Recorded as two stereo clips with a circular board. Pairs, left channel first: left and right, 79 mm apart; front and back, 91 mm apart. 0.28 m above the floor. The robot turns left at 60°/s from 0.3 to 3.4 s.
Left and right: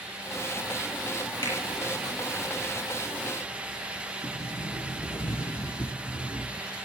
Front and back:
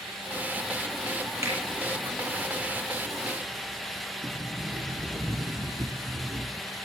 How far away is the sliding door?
About 2.5 m.